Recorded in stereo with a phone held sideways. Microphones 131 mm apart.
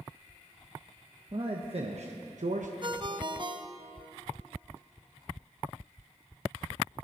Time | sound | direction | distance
1.3 | a man speaking | 40° right (ahead or behind) | 1.1 m
2.8 | a ringtone | 35° right (ahead or behind) | 0.7 m